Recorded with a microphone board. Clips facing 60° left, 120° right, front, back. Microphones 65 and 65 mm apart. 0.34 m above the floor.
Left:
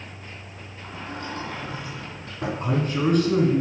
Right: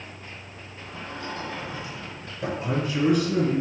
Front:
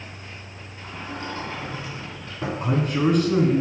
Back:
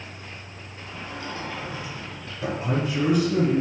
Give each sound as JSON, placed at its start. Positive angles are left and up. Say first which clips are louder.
{"t": 0.8, "sound": "a sliding door", "louder": "left 1 dB, front 2 dB", "azimuth_deg": 45, "distance_m": 3.5}
{"t": 2.6, "sound": "a man speaking", "louder": "even, front 3 dB", "azimuth_deg": 25, "distance_m": 3.0}